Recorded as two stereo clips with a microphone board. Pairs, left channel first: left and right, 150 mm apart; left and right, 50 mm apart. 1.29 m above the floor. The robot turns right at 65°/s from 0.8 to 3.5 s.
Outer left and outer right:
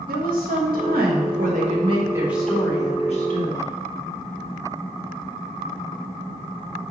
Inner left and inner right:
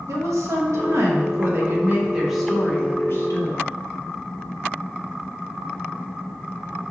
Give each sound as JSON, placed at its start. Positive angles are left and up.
{"t": 0.1, "sound": "a woman speaking", "azimuth_deg": -105, "distance_m": 1.3}